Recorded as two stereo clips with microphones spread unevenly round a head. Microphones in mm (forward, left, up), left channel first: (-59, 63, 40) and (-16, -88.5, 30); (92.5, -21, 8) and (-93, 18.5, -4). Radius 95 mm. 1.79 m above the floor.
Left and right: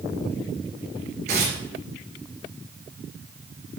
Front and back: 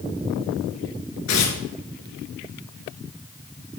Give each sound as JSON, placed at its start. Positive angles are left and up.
{"t": 1.3, "sound": "tearing paper", "azimuth_deg": -20, "distance_m": 3.5}